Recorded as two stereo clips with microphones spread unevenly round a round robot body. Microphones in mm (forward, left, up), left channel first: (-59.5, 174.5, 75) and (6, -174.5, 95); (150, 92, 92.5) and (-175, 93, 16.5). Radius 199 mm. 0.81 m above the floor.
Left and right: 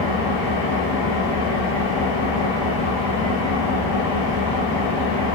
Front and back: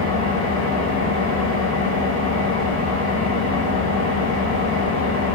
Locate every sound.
0.0 s an engine running: 115° left, 3.5 m